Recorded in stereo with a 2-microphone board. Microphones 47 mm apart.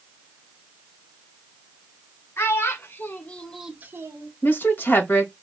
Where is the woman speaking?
40° left (ahead or behind), 1.6 m.